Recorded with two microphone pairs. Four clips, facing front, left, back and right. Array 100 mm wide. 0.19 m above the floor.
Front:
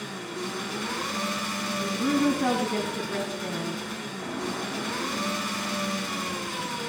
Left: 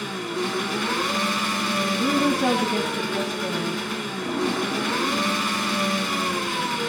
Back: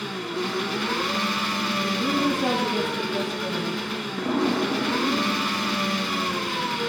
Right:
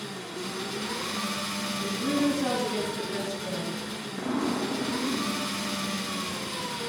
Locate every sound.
0.0 s an engine running: 115° left, 0.9 m
1.8 s a woman speaking: 60° left, 1.4 m
4.2 s an explosion: 165° right, 4.5 m